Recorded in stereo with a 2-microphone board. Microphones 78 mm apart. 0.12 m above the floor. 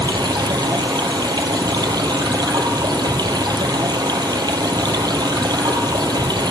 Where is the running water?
70° right (ahead or behind), 0.8 m.